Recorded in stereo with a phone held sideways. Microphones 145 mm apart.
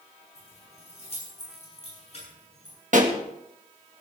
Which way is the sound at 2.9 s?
60° right (ahead or behind).